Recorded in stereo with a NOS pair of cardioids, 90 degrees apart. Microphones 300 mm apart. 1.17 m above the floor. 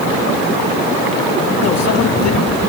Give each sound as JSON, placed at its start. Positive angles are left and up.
{"t": 1.6, "sound": "a microwave", "azimuth_deg": 55, "distance_m": 2.0}